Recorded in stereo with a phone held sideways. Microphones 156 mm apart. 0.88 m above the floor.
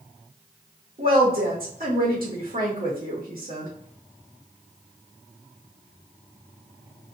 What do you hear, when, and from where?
1.0 s a woman speaking: 70° right (ahead or behind), 1.0 m